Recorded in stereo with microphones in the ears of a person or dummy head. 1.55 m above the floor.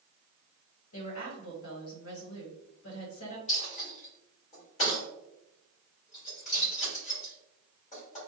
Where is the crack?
No crack in this recording.